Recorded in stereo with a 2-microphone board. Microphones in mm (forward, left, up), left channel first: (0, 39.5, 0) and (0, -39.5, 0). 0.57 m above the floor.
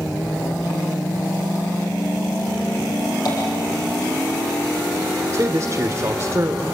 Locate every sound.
3.2 s tapping: 50° left (ahead or behind), 8.5 m
5.3 s a man speaking: 40° right (ahead or behind), 1.4 m